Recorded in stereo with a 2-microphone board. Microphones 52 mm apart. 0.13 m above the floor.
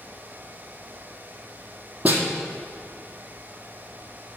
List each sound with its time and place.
2.0 s a snare drum: 30° right (ahead or behind), 2 m